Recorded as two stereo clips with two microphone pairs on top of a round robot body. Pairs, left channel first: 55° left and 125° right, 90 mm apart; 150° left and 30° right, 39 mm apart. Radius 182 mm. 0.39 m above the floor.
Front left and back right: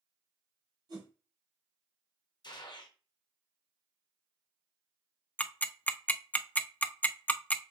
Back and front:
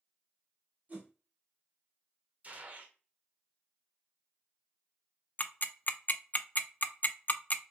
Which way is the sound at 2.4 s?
20° left.